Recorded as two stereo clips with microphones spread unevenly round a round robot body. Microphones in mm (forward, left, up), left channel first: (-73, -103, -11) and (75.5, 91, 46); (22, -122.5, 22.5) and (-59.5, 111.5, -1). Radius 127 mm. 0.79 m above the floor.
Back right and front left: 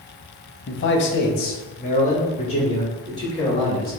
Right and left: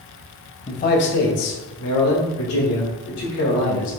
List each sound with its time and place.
0.7 s a man speaking: 135° right, 0.8 m; by 3.9 s 55° right, 2.5 m